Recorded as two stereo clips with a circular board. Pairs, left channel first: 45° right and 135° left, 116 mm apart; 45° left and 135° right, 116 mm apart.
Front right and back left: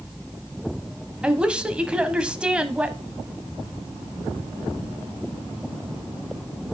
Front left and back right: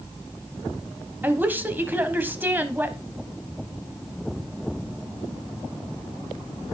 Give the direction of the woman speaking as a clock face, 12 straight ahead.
6 o'clock.